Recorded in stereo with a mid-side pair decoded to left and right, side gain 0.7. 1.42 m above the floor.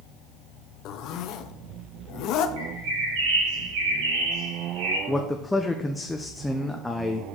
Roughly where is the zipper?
Ahead left.